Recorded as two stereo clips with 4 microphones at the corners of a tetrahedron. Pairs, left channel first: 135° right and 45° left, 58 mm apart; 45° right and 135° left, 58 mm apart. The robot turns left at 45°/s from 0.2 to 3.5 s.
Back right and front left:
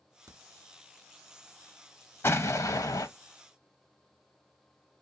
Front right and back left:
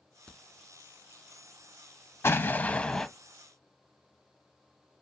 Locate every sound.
0.3 s a crack: 30° left, 1.5 m; by 0.4 s 25° left, 1.5 m
2.2 s an explosion: 90° right, 0.6 m; by 3.1 s 130° right, 0.6 m